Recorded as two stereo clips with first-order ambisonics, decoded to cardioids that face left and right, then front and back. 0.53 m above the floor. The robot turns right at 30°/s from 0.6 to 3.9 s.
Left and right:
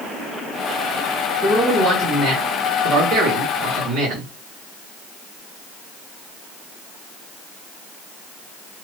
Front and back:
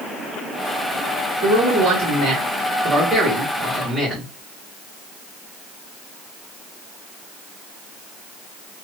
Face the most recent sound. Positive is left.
turn(degrees=-95)